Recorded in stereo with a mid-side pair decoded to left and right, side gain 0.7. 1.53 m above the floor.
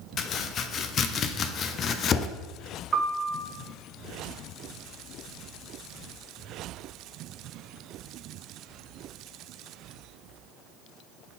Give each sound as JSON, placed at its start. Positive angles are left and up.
{"t": 0.2, "sound": "chopping", "azimuth_deg": 40, "distance_m": 0.6}
{"t": 2.9, "sound": "a piano", "azimuth_deg": -25, "distance_m": 1.0}